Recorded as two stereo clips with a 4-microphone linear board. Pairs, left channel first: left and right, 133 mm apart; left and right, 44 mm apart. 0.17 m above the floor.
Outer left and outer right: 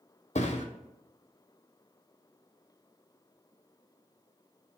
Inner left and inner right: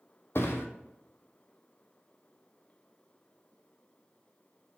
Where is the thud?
65° left (ahead or behind), 0.5 m.